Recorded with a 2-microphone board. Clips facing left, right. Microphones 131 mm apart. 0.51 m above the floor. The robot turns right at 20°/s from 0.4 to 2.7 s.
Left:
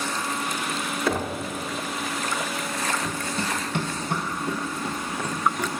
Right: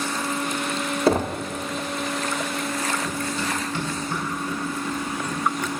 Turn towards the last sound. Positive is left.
turn(degrees=80)